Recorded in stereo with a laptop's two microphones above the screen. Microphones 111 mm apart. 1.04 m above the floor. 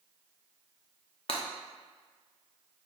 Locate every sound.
1.3 s breaking glass: 55° left (ahead or behind), 0.7 m